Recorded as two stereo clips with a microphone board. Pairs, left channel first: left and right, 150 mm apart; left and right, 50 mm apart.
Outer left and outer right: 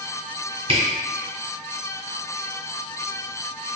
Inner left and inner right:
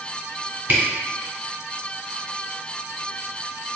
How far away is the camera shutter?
About 1.8 m.